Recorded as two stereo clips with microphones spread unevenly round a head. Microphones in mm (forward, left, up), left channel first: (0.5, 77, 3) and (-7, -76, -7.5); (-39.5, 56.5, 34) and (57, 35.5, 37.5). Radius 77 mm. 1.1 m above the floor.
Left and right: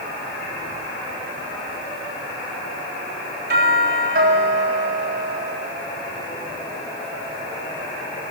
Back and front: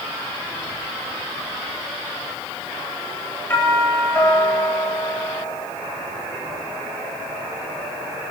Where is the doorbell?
120° right, 9 m.